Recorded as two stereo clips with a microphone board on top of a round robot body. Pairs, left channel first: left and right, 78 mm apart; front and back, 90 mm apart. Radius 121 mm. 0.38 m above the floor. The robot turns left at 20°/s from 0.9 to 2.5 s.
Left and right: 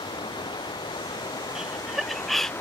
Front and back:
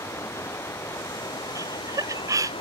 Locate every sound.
0.0 s running water: 65° left; by 2.6 s 30° left
1.6 s laughter: 165° right; by 2.5 s 175° left